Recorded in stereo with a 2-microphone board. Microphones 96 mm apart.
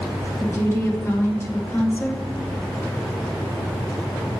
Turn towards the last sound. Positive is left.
turn(degrees=30)  # may be behind; listen again after turning